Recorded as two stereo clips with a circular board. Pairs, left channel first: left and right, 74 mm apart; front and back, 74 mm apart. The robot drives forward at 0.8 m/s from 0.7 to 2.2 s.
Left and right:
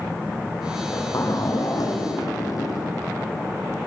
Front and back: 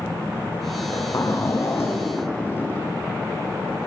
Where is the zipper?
45° left, 4.5 m; by 2.9 s 60° left, 3.5 m.